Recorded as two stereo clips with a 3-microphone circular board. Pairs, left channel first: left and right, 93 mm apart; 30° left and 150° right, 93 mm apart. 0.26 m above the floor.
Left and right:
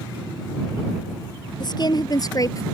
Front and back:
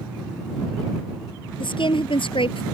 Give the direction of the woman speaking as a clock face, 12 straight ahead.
10 o'clock.